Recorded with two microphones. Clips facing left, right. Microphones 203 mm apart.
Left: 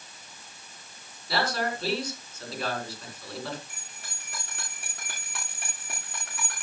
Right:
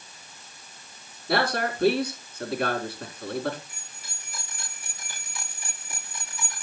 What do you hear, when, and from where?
1.3 s a man speaking: 65° right (ahead or behind), 4 m
3.7 s a bell: 85° left, 7 m